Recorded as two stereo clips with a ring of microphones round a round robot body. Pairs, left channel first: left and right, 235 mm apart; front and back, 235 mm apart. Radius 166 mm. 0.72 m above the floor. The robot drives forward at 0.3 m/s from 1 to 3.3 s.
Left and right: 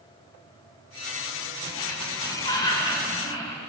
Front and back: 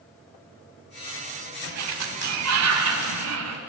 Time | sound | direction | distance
1.6 | a sliding door | 165° left | 1.5 m